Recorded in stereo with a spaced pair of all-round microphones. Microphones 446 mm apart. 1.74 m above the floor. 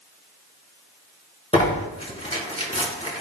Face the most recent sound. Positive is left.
turn(degrees=15)  # may be behind; listen again after turning